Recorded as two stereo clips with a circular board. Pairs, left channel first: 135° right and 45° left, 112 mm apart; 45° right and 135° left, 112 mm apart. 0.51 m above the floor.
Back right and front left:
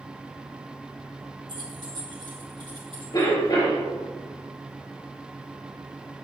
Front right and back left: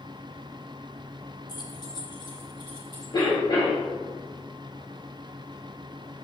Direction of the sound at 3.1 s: 90° right.